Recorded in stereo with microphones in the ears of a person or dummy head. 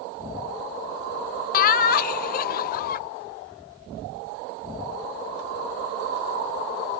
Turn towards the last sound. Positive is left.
turn(degrees=50)  # may be behind; listen again after turning